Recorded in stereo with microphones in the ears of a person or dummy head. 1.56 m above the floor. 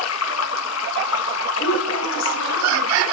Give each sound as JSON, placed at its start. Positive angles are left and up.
{"t": 0.0, "sound": "running water", "side_deg": 85, "distance_m": 1.9}
{"t": 1.6, "sound": "a woman speaking", "side_deg": 75, "distance_m": 7.5}